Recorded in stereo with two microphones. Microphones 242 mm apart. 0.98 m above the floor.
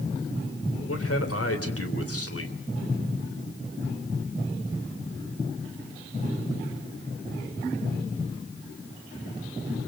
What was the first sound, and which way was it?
A man speaking, 70° left (ahead or behind).